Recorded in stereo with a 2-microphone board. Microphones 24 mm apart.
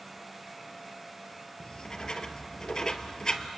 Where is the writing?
40° left (ahead or behind), 1.2 m.